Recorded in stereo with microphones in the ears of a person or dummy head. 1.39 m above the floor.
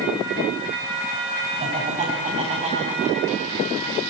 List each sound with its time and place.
1.6 s laughter: 35° right (ahead or behind), 8 m